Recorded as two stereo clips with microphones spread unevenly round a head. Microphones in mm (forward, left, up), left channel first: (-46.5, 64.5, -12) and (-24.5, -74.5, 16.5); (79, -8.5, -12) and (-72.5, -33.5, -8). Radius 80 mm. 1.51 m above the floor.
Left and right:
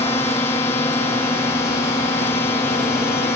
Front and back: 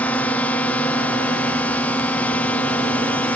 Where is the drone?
80° left.